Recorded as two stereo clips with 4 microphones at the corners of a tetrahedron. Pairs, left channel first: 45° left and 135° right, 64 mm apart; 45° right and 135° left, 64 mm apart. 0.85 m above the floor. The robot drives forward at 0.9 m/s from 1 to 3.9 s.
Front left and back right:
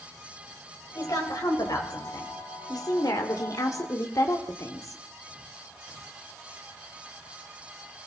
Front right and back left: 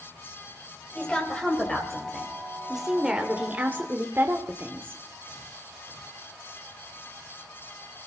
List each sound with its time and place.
0.9 s a woman speaking: 30° left, 3.5 m; by 5.0 s 80° left, 1.8 m